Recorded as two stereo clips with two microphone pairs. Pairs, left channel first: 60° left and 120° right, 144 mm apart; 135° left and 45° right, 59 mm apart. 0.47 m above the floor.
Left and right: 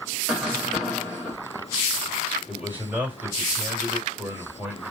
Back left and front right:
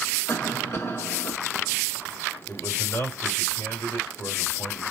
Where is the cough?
150° left, 2 m.